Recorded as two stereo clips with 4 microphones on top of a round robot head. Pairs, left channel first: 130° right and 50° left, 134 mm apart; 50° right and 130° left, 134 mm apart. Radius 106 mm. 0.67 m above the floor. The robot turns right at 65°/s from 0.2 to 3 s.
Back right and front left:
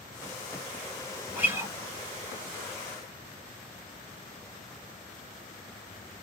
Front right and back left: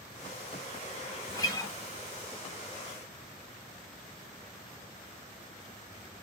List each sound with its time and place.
1.3 s a guitar: 20° right, 1.3 m; by 1.7 s 10° left, 1.3 m